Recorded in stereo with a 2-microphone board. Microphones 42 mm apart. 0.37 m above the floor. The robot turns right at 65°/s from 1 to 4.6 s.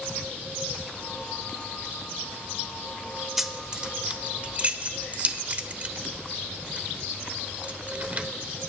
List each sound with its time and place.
3.4 s keys jangling: 5° right (ahead or behind), 0.6 m; by 8.3 s 30° right (ahead or behind), 0.6 m